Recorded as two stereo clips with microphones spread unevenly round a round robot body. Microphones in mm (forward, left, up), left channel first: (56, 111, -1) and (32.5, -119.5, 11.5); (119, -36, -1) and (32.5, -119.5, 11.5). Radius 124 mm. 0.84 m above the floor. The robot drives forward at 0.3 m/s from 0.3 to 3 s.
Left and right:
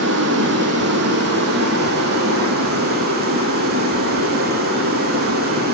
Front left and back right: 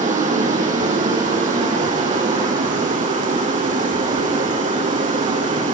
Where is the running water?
140° right, 3.5 m; by 5.8 s 150° right, 4 m.